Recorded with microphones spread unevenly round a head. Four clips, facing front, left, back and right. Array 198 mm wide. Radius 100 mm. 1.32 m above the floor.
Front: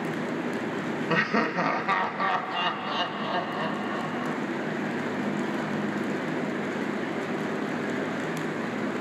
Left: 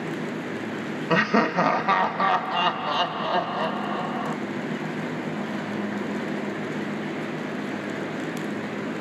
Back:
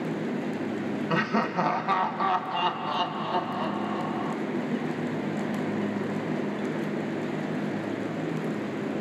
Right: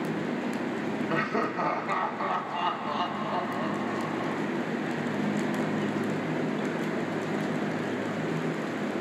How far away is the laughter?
About 1.5 m.